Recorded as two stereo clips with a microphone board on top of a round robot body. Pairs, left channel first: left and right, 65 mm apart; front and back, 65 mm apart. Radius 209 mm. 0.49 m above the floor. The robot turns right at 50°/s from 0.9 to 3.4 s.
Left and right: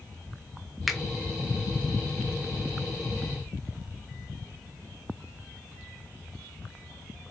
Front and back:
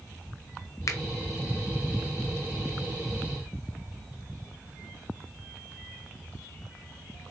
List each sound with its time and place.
0.9 s a finger snap: straight ahead, 0.7 m; by 1.0 s 5° left, 0.7 m